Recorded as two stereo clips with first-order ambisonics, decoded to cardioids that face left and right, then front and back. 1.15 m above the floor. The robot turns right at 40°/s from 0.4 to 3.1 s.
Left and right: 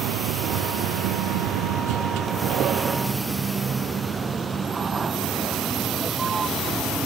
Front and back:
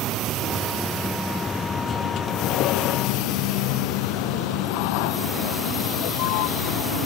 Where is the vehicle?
125° right; by 7.1 s 15° right.